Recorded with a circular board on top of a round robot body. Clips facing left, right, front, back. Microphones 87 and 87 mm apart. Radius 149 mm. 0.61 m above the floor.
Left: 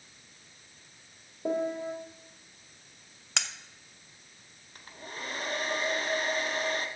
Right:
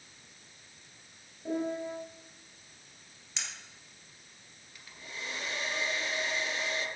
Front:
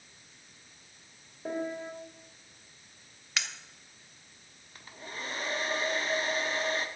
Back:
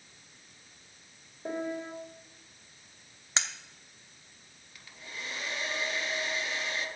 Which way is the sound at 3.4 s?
115° left.